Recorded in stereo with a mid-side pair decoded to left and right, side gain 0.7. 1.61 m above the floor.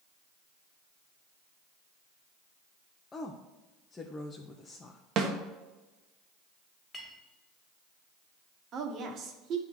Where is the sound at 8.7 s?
45° right, 1.4 m.